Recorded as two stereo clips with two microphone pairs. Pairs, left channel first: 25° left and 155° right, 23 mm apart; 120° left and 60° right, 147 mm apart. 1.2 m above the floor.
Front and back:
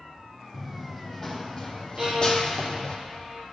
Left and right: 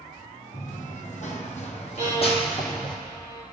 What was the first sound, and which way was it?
Running footsteps, 125° left.